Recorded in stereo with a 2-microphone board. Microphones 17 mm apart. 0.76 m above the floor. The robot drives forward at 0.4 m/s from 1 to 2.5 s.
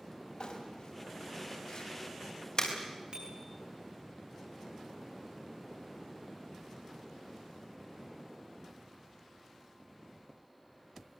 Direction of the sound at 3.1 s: 50° right (ahead or behind).